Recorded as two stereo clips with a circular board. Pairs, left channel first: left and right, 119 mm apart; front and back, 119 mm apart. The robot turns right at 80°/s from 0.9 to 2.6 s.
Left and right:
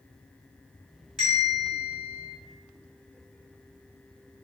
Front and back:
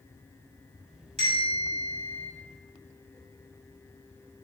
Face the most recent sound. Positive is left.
turn(degrees=-60)